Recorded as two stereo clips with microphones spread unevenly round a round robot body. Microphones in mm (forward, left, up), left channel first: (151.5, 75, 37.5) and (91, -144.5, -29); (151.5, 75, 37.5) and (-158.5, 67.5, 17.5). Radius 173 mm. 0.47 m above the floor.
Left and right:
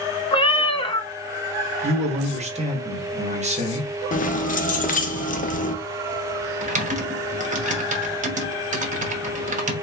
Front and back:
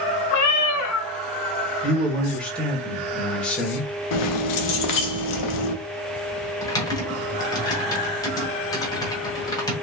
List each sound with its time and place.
0.3 s a cat meowing: 20° left, 0.5 m
1.8 s a man speaking: 90° right, 1.1 m
4.1 s keys jangling: 10° left, 0.7 m
6.6 s typing on a keyboard: 80° right, 0.9 m